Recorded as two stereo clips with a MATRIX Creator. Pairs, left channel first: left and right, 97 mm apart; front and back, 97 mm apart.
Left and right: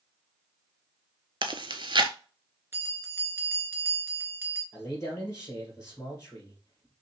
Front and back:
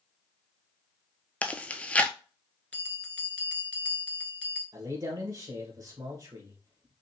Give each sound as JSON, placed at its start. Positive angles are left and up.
{"t": 1.4, "sound": "chewing", "azimuth_deg": -75, "distance_m": 0.6}
{"t": 2.7, "sound": "a bell", "azimuth_deg": -60, "distance_m": 1.3}
{"t": 4.7, "sound": "a man speaking", "azimuth_deg": 145, "distance_m": 2.5}